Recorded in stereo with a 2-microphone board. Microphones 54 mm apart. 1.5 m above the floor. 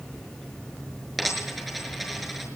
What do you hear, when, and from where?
1.2 s a dropped coin: 5° right (ahead or behind), 5.5 m